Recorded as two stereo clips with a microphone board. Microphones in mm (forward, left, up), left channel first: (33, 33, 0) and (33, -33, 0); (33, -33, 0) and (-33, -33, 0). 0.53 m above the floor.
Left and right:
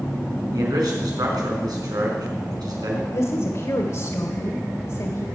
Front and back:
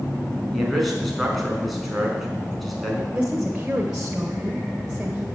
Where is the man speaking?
90° right, 5 m.